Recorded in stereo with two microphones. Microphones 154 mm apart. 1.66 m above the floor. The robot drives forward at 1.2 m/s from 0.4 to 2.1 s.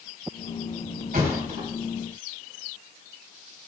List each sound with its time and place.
1.1 s a thud: 65° right (ahead or behind), 3 m; by 1.7 s 60° right (ahead or behind), 3.5 m